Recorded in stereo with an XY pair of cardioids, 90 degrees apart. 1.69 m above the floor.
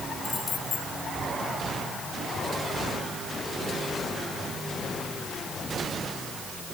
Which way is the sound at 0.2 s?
55° left.